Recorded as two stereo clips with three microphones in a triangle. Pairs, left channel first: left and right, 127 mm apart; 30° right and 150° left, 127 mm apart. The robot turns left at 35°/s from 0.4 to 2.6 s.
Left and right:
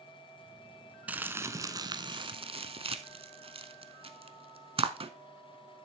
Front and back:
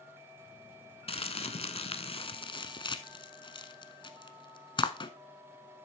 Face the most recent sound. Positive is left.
turn(degrees=-70)